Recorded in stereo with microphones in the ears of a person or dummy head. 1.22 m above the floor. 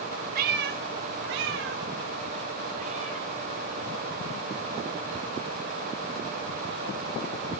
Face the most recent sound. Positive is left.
turn(degrees=-30)  # may be behind; listen again after turning